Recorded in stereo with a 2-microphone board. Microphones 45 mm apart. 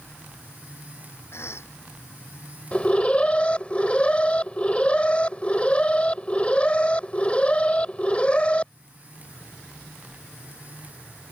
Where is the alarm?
25° left (ahead or behind).